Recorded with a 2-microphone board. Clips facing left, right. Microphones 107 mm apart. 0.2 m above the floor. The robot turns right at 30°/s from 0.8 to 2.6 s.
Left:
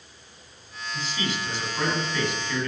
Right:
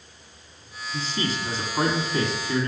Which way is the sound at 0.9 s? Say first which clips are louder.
Right 2 dB; 100° right.